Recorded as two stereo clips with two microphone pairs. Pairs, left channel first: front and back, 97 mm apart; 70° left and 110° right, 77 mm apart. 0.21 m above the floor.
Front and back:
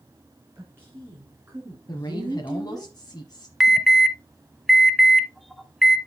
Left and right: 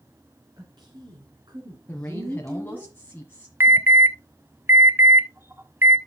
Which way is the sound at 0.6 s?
115° right.